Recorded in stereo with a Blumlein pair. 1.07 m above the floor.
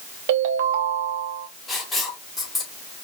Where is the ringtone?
50° right, 0.8 m.